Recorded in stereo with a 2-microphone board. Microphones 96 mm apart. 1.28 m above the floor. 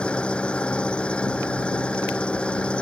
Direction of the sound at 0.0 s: 10° left (ahead or behind).